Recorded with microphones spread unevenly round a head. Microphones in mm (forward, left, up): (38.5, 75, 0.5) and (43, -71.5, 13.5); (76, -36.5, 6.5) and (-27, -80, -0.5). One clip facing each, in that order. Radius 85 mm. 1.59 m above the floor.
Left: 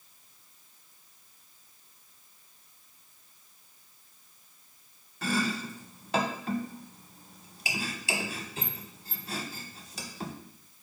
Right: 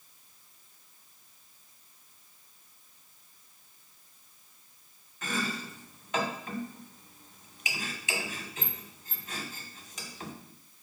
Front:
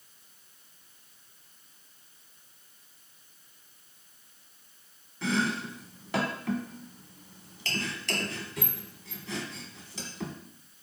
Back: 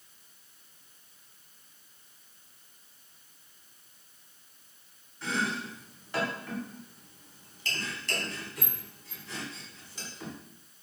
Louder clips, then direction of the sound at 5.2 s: Left 4 dB, front 3 dB; 35° left.